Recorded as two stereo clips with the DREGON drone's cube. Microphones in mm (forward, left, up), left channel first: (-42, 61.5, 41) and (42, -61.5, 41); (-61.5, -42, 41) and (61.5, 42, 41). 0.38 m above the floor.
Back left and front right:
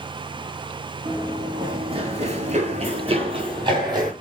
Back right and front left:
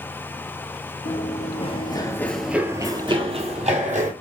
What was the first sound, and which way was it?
Running footsteps, 125° right.